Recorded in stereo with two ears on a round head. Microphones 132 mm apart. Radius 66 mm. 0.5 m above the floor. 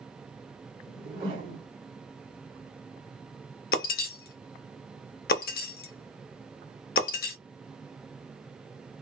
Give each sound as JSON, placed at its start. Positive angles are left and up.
{"t": 0.9, "sound": "a whoosh", "side_deg": -40, "distance_m": 1.4}
{"t": 3.7, "sound": "breaking glass", "side_deg": 65, "distance_m": 0.6}